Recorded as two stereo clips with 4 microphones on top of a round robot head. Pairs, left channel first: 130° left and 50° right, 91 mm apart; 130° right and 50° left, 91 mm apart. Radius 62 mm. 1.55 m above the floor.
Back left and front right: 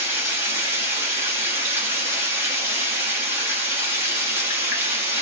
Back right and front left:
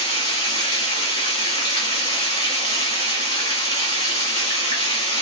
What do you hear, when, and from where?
0.0 s running water: 100° right, 1.0 m